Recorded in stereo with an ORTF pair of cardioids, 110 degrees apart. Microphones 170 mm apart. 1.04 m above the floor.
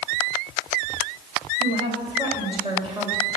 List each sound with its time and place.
1.6 s a woman speaking: 30° right, 4 m